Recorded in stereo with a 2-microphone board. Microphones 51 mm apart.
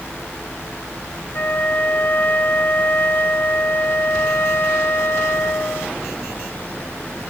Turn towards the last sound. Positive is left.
turn(degrees=50)  # may be behind; listen again after turning